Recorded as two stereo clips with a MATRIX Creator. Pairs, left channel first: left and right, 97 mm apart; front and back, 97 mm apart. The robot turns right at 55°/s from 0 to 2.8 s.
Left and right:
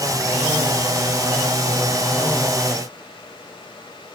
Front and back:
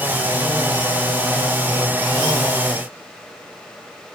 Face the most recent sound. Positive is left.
No sound to turn to.